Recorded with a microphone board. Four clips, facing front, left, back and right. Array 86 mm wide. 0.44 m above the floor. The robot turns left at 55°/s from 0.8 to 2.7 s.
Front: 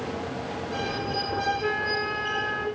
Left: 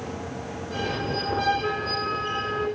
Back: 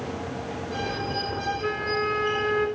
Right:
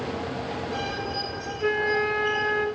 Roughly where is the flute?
Ahead right.